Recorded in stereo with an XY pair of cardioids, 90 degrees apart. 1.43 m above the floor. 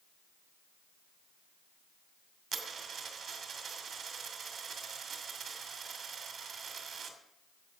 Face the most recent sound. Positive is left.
turn(degrees=-60)